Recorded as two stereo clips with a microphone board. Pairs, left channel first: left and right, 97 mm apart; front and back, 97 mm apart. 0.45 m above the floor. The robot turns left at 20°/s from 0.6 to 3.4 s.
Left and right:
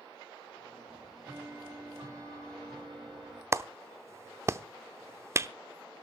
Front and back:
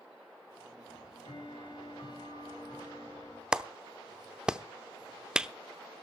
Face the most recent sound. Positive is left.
turn(degrees=-105)